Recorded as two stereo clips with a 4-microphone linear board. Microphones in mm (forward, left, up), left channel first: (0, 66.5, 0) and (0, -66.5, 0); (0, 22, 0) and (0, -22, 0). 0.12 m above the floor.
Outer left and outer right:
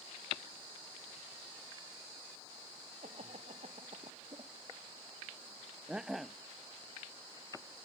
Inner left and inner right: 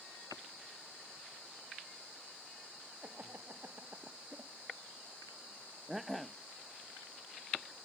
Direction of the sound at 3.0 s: 65° right (ahead or behind).